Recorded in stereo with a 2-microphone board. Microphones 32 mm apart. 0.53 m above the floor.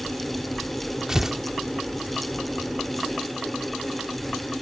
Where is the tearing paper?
15° right (ahead or behind).